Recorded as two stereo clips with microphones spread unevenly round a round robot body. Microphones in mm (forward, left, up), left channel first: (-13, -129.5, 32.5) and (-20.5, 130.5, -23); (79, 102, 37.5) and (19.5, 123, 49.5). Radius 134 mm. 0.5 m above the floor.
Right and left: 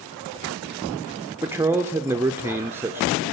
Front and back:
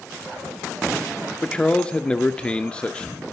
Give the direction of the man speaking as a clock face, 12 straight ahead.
11 o'clock.